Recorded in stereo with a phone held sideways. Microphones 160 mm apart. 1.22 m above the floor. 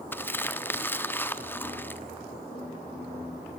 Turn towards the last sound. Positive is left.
turn(degrees=15)  # may be behind; listen again after turning